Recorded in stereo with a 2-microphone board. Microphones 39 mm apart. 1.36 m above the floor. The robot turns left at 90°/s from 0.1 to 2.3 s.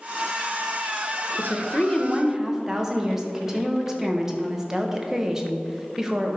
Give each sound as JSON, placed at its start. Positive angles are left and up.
{"t": 1.4, "sound": "a woman speaking", "azimuth_deg": 65, "distance_m": 1.1}